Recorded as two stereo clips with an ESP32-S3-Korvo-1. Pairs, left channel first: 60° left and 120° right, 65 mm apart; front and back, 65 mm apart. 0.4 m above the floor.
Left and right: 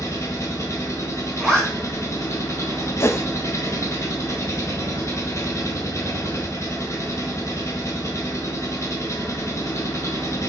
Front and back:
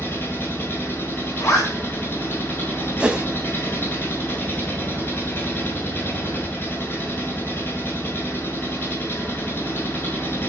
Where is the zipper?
20° right, 4 m.